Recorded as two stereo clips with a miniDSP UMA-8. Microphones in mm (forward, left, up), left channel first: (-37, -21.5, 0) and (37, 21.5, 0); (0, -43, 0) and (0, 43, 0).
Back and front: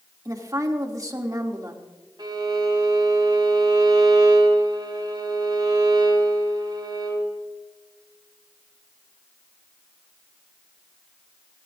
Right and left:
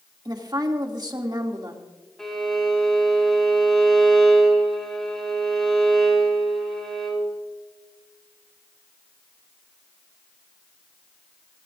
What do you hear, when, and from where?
0.2 s a woman speaking: 70° left, 2 m
2.2 s a violin: 5° right, 4.5 m